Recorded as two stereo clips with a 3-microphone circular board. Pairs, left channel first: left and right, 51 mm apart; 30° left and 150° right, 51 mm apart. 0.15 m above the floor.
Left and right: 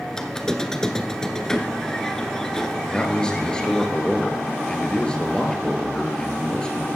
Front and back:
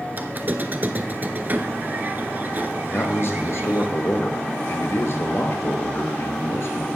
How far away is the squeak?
About 0.8 m.